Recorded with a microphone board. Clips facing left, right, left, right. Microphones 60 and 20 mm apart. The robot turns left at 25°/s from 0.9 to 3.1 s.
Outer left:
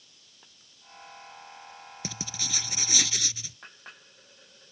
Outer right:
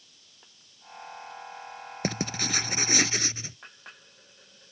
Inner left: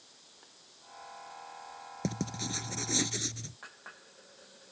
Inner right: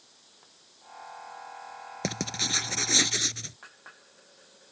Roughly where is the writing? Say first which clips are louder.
Outer right 9 dB, inner right 6 dB; right.